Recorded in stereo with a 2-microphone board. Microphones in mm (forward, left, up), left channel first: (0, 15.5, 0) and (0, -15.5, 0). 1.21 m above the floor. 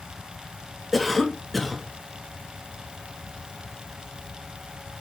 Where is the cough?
Centre (ahead or behind), 2 m.